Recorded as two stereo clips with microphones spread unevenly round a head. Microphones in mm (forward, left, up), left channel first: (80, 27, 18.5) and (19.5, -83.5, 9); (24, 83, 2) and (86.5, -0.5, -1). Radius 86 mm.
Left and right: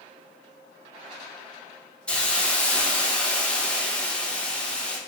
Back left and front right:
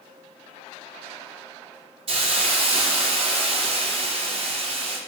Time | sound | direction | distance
2.1 | a hiss | 20° right | 0.5 m